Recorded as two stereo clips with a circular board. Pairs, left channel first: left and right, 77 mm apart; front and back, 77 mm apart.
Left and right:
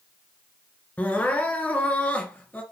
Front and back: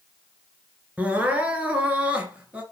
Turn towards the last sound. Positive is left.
turn(degrees=135)